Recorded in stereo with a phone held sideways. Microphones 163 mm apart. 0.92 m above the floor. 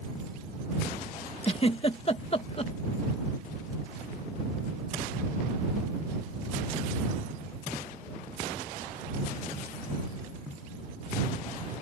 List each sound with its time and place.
1.4 s a giggle: 35° left (ahead or behind)